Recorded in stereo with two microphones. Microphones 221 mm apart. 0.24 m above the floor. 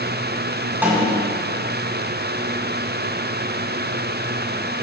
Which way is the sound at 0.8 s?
10° right (ahead or behind).